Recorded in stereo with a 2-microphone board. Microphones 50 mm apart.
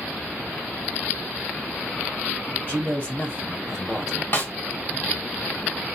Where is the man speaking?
30° left (ahead or behind), 1.8 m; by 4.2 s 5° left (ahead or behind), 1.5 m.